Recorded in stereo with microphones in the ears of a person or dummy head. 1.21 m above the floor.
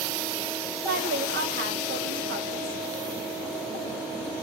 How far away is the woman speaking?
About 1.2 m.